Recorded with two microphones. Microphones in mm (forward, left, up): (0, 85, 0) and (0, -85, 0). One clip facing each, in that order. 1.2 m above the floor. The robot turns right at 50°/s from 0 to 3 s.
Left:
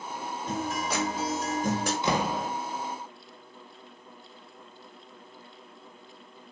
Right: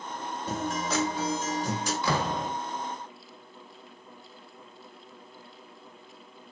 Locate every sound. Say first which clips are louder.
0.5 s a guitar: right 1 dB; 10° right, 5 m; by 1.9 s 65° left, 5 m
2.0 s a door slam: right 1 dB; 20° left (ahead or behind), 1.4 m; by 2.5 s centre (ahead or behind), 1.4 m